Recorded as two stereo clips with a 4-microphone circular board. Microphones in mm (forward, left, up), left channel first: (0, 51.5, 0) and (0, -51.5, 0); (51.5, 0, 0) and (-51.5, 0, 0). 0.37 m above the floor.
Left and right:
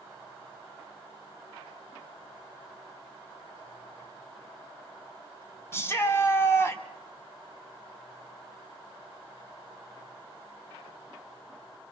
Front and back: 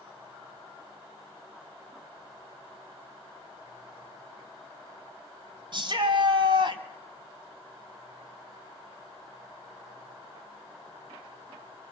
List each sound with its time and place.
5.7 s a shout: 150° left, 2.5 m